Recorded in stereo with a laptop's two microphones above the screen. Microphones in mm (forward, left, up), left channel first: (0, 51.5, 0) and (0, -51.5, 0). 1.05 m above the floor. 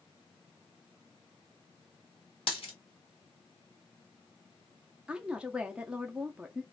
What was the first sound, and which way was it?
A dropped coin, 60° left (ahead or behind).